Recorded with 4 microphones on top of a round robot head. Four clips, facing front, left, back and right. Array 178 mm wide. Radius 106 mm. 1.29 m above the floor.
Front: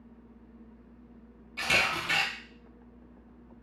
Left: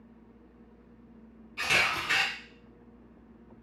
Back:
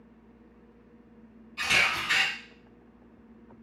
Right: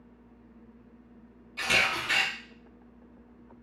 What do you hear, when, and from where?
1.6 s a camera shutter: 45° right, 1.4 m